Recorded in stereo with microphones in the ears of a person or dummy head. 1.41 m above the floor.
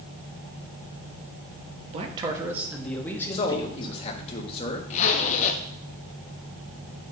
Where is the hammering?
I don't hear hammering.